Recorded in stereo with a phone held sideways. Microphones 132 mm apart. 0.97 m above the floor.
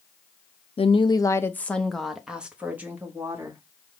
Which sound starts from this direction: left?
A woman speaking, at 0.8 s.